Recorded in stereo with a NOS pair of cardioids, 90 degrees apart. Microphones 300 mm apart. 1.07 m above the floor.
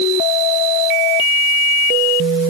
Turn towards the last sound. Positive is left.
No sound to turn to.